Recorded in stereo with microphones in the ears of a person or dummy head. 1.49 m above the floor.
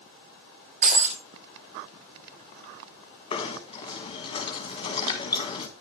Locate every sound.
0.8 s breaking glass: 35° right (ahead or behind), 1.5 m
3.3 s knocking: 30° left (ahead or behind), 1.3 m